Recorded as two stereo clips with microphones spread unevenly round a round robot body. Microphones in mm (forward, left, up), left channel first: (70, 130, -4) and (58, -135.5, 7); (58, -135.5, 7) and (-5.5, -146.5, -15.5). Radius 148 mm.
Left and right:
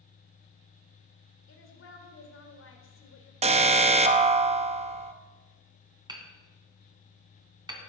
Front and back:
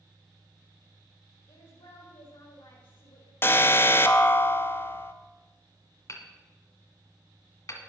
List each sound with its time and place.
1.5 s a woman speaking: 50° left, 2.5 m
3.4 s an alarm: 50° right, 0.9 m
6.1 s hammering: 20° right, 2.5 m